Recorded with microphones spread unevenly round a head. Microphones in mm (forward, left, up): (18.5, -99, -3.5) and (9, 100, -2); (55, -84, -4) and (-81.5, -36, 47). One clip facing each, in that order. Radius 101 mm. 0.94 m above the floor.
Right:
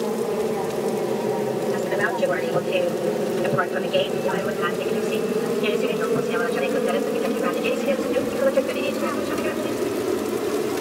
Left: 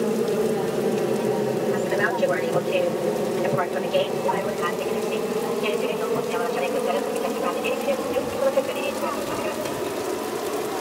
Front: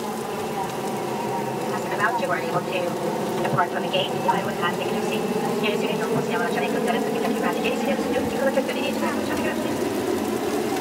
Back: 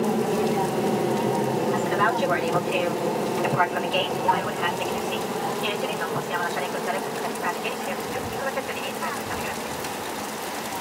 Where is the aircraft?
160° left; by 10.8 s 30° right.